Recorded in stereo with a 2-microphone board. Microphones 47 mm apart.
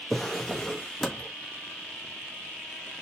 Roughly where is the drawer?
Centre.